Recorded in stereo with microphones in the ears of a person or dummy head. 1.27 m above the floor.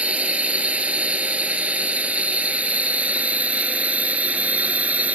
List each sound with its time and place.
0.0 s a drone: 5° right (ahead or behind)